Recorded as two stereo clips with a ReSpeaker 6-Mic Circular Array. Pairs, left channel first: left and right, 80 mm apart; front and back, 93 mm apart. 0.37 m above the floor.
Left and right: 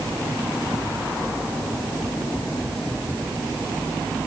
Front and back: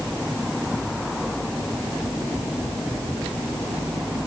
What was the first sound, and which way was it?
Only background noise.